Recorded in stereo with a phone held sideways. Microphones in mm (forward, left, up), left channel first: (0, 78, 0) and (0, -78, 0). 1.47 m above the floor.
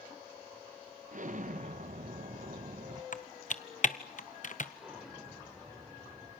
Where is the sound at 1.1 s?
55° right (ahead or behind), 1.0 m.